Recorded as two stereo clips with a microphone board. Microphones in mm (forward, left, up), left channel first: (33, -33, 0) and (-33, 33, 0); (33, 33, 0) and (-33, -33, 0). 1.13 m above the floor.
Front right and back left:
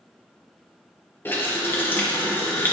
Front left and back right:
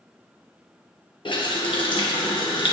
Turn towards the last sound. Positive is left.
turn(degrees=20)